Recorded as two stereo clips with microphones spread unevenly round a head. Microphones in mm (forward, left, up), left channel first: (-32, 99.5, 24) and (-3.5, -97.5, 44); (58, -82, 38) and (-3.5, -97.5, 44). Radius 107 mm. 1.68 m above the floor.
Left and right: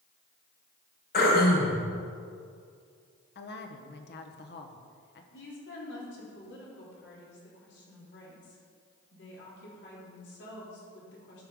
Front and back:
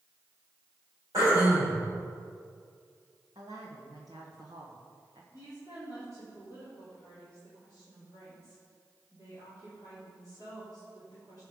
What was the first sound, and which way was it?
Throat clearing, 140° left.